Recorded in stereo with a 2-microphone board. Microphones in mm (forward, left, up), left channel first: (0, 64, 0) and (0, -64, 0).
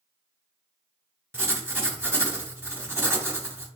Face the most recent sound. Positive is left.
turn(degrees=-15)  # may be behind; listen again after turning